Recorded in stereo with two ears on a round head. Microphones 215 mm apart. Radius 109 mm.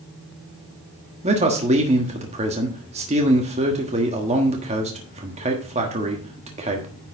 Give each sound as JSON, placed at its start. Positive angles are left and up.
{"t": 1.2, "sound": "a man speaking", "side_deg": -30, "distance_m": 1.3}